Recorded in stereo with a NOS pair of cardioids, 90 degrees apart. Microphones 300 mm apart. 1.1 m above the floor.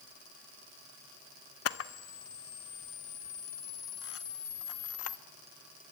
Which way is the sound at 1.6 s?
50° left.